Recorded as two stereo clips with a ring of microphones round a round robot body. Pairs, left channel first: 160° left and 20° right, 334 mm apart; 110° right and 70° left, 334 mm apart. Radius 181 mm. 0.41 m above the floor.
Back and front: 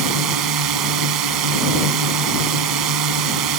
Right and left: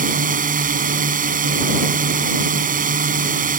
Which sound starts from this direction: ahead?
A drone, at 0.0 s.